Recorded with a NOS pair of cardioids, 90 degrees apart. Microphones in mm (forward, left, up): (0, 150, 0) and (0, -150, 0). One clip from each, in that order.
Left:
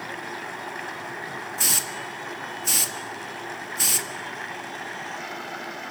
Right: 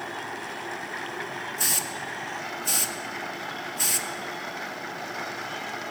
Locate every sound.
1.6 s a hiss: 20° left, 1.8 m